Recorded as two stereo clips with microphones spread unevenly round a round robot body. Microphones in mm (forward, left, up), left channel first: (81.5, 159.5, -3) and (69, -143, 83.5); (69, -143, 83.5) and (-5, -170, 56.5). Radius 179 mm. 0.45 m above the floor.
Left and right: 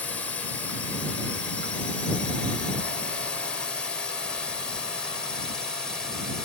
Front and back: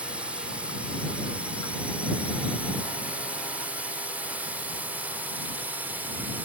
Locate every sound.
0.0 s a drone: 155° left; by 6.5 s 160° left